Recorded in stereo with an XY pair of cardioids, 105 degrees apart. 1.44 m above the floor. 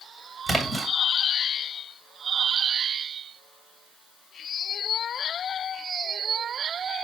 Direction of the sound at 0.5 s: 10° right.